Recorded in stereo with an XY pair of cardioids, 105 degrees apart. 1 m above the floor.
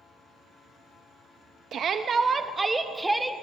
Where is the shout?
60° right, 0.7 m; by 3.3 s 5° right, 1.2 m.